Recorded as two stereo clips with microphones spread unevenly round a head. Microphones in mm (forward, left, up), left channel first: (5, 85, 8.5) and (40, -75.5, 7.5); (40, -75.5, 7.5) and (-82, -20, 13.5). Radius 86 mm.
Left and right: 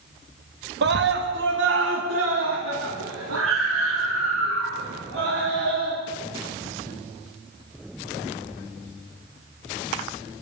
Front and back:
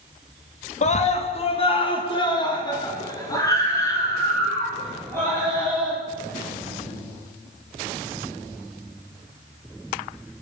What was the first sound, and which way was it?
A scream, 55° right.